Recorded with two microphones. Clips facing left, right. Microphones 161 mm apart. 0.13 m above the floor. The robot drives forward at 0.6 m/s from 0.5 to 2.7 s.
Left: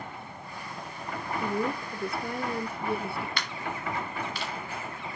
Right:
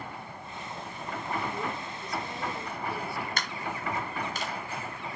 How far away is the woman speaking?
About 3 m.